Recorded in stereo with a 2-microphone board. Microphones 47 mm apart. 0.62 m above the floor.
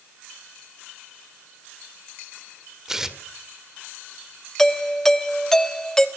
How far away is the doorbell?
About 1.2 m.